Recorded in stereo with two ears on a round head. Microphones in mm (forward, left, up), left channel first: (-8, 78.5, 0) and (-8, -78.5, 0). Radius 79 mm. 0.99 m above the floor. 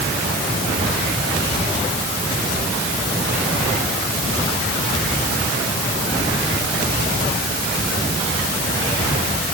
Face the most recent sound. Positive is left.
No sound to turn to.